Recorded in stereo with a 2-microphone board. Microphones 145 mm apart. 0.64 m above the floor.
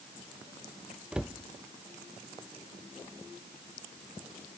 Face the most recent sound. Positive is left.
turn(degrees=-5)  # may be behind; listen again after turning